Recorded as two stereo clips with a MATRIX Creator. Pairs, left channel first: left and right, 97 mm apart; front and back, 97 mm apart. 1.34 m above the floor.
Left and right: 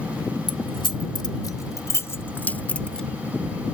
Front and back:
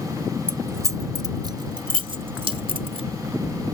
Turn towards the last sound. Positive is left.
turn(degrees=175)